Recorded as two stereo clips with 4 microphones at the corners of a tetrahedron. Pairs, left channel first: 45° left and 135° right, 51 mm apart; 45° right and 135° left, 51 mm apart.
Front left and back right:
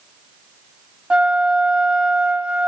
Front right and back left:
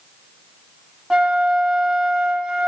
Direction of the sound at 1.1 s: 170° right.